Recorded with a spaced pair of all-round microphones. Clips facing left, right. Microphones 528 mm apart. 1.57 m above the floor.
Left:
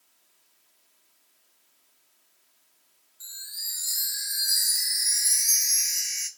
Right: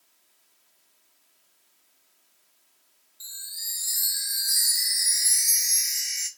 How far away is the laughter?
I don't hear laughter.